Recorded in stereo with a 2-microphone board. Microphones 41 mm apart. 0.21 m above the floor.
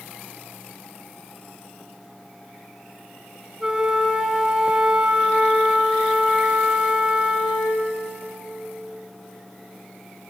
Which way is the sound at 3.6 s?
20° right (ahead or behind).